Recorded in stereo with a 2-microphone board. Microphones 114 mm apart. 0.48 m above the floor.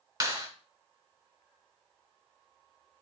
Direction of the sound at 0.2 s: 35° right (ahead or behind).